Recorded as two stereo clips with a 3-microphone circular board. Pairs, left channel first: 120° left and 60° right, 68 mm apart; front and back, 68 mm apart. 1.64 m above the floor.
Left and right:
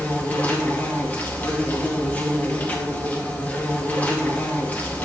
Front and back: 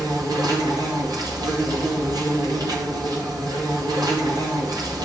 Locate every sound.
0.0 s an insect: 175° right, 2 m